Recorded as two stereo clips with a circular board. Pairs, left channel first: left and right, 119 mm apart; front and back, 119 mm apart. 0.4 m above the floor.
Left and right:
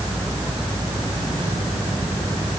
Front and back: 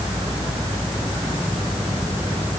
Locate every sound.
Only background noise.